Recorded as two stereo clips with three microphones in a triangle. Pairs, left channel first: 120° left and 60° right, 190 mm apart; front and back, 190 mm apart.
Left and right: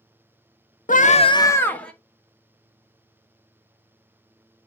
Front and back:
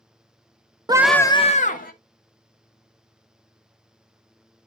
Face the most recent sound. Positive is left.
turn(degrees=35)